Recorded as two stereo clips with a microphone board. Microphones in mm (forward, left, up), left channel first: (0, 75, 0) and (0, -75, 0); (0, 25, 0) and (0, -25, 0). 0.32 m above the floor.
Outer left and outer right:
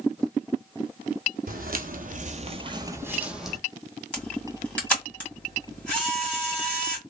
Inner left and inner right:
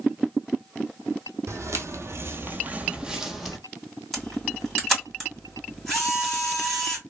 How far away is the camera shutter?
About 2 m.